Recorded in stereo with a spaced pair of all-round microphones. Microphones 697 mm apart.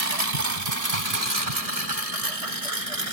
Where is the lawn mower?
70° right (ahead or behind); by 3.1 s 55° right (ahead or behind).